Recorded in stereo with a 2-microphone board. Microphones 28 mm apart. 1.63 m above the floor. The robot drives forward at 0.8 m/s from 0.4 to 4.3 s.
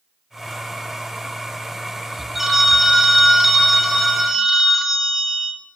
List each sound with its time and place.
2.4 s a phone ringing: 5° right (ahead or behind), 0.9 m